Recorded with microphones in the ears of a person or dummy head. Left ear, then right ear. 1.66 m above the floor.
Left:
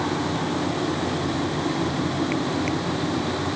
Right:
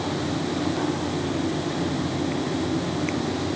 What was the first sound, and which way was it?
Only background noise.